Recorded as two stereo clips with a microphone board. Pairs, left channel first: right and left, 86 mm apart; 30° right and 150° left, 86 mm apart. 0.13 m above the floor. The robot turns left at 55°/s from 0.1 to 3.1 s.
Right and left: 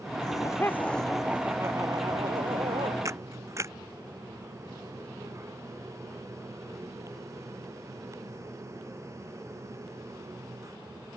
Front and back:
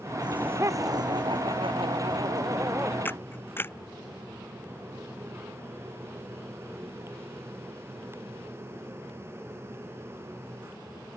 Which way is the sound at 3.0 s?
35° left.